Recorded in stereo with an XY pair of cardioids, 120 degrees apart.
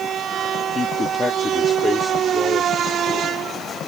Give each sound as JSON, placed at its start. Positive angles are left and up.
{"t": 0.8, "sound": "a man speaking", "azimuth_deg": 35}